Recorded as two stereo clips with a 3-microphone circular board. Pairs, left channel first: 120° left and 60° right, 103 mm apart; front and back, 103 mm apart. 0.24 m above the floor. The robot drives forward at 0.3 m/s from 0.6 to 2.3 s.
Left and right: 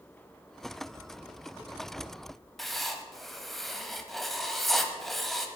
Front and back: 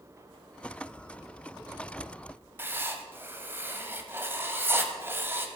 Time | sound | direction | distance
2.6 | writing | 155° right | 1.1 m